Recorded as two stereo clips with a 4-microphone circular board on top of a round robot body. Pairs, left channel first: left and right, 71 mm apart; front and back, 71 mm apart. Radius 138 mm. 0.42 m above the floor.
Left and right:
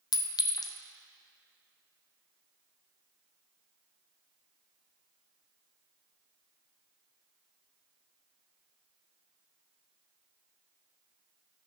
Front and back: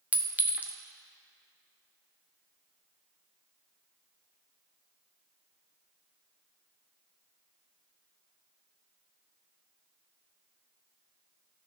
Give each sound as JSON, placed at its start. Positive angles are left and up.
{"t": 0.1, "sound": "a clink", "azimuth_deg": 110, "distance_m": 0.7}